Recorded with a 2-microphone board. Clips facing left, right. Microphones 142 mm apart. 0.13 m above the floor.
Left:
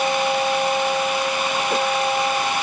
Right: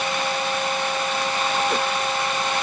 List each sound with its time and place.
Only background noise.